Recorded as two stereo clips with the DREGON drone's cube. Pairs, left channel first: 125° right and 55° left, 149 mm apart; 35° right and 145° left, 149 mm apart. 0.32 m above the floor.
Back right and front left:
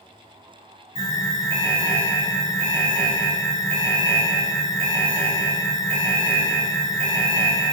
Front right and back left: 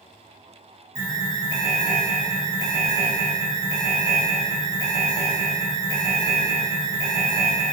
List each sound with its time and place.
0.9 s an alarm: 85° left, 1.6 m